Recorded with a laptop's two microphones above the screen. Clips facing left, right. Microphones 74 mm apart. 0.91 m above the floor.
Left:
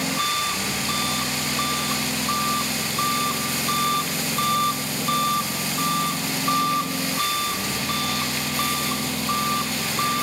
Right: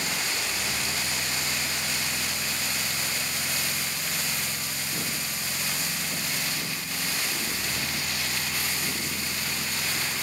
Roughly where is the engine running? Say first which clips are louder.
Left 7 dB; left.